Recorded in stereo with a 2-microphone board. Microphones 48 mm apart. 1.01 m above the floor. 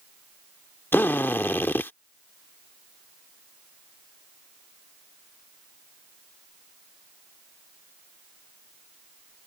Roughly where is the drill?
Left.